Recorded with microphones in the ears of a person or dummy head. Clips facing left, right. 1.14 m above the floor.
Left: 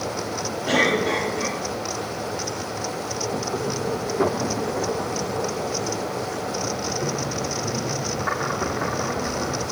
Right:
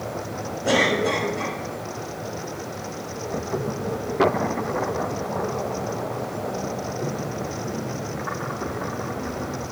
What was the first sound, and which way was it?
A cough, 65° right (ahead or behind).